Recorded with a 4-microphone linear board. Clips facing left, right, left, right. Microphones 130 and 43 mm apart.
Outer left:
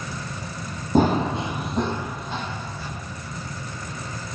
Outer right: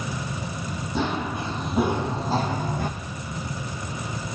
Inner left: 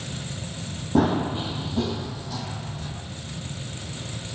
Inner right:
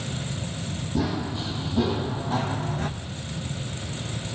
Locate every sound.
0.9 s running footsteps: 45° left (ahead or behind), 1.3 m; by 2.9 s 50° right (ahead or behind), 2 m